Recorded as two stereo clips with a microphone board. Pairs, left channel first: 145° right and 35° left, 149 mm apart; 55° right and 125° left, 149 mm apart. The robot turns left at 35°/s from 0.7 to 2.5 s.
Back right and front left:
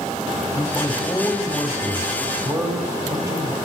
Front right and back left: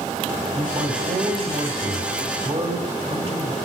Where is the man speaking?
160° left, 1.8 m; by 3.5 s 95° left, 1.8 m.